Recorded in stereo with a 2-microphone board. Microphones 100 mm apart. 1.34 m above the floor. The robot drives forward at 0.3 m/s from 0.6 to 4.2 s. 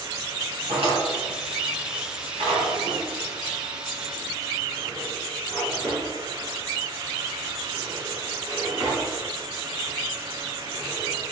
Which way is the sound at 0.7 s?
75° right (ahead or behind).